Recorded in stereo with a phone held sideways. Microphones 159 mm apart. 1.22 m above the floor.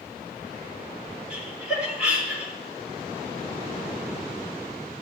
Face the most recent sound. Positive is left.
turn(degrees=-5)  # may be behind; listen again after turning